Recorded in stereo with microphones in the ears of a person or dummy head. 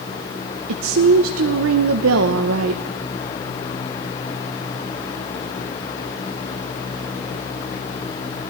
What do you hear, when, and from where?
0.7 s a woman speaking: 80° right, 0.6 m